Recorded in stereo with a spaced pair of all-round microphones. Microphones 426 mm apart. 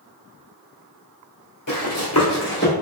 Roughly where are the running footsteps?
Left.